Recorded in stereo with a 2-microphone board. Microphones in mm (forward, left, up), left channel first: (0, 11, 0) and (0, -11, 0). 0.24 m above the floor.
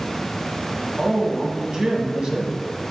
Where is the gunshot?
No gunshot in this recording.